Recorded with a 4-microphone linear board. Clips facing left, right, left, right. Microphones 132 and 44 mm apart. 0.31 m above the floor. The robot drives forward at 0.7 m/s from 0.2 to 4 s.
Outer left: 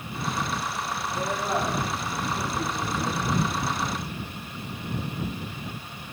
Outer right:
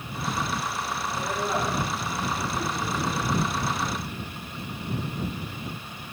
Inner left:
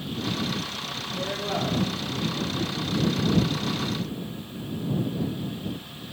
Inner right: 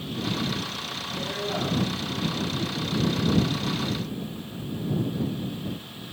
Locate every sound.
1.1 s a woman speaking: 5° left (ahead or behind), 6.5 m